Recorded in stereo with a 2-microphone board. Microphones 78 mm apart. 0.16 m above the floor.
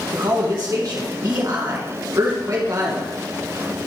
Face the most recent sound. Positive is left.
turn(degrees=-45)  # may be behind; listen again after turning